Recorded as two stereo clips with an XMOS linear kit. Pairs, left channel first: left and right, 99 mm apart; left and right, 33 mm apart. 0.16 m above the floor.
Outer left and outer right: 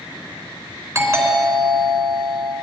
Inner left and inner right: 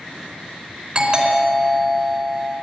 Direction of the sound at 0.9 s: 35° right (ahead or behind).